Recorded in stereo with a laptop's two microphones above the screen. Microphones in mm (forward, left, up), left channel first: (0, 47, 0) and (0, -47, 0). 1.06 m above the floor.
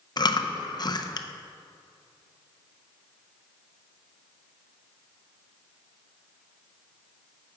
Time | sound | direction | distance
0.2 | chewing | 45° left (ahead or behind) | 0.5 m